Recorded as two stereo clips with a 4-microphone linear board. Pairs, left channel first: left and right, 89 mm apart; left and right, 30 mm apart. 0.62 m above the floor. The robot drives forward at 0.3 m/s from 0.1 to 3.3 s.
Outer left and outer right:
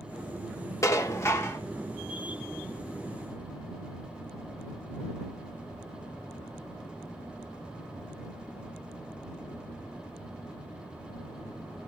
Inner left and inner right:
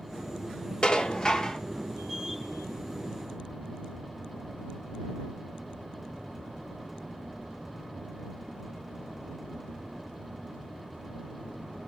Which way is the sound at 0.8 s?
35° left (ahead or behind).